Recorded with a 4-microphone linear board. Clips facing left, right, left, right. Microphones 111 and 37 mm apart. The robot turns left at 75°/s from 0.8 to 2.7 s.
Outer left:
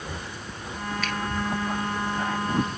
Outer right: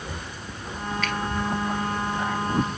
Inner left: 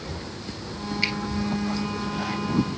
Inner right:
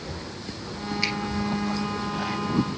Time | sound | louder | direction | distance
1.0 | a finger snap | outer right 3 dB, inner left 1 dB | 5° left (ahead or behind) | 2.5 m